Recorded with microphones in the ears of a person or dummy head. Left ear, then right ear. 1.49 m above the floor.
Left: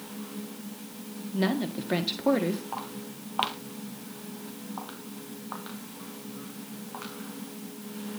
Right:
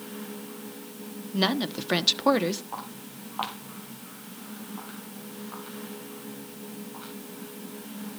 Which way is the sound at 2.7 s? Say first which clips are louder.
Left 1 dB; 5° left (ahead or behind).